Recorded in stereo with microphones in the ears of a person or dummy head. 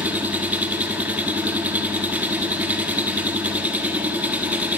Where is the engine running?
5° right (ahead or behind), 1.2 m.